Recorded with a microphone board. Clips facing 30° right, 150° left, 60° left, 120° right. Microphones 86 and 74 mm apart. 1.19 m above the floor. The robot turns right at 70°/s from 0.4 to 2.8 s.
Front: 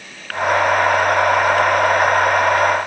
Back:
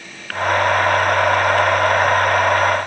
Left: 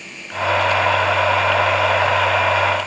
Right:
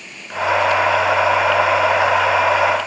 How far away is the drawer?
I don't hear a drawer.